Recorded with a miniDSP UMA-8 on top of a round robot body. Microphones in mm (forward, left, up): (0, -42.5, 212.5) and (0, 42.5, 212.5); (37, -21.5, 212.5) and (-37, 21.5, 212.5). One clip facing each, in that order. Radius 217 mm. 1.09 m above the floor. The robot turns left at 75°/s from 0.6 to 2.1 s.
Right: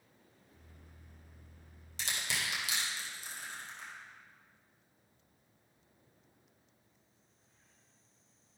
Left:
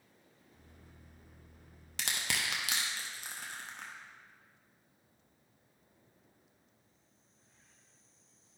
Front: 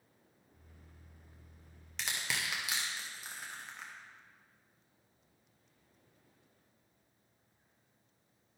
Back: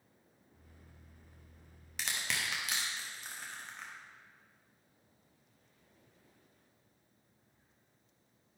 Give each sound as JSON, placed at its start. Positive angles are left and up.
{"t": 2.0, "sound": "crushing", "azimuth_deg": 65, "distance_m": 1.2}